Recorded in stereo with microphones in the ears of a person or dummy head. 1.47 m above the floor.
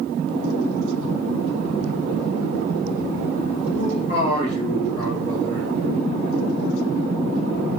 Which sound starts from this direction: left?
A man speaking, at 3.7 s.